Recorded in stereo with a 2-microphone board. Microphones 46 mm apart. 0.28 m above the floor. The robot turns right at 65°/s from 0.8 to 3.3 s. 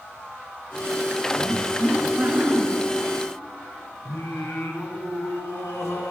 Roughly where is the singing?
Left.